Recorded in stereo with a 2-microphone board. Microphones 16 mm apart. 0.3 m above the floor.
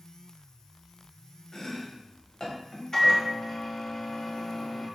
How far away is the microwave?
About 1.6 m.